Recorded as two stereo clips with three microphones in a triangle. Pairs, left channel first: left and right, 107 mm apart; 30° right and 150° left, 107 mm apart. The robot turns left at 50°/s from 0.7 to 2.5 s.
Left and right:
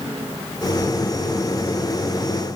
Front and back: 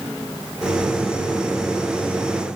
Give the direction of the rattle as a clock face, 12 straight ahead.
I don't hear a rattle.